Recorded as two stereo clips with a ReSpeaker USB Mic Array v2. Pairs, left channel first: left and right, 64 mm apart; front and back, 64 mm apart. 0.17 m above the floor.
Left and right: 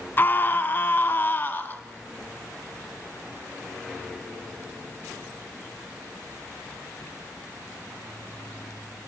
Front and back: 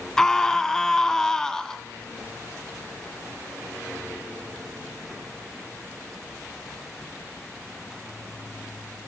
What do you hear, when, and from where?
0.2 s a scream: 75° left, 1.2 m